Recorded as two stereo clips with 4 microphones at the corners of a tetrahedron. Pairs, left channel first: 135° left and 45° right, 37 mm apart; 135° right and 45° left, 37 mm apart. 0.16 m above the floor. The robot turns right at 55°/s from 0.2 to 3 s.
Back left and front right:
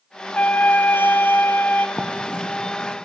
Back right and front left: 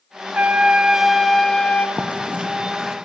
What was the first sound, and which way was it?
A trumpet, 90° left.